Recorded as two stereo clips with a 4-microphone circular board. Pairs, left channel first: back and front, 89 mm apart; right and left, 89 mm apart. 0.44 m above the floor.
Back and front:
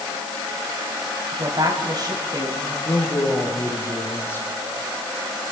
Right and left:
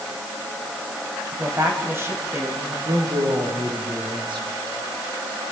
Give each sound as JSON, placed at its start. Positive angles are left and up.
{"t": 1.3, "sound": "a woman speaking", "azimuth_deg": 35, "distance_m": 3.0}
{"t": 2.9, "sound": "a man speaking", "azimuth_deg": 120, "distance_m": 6.0}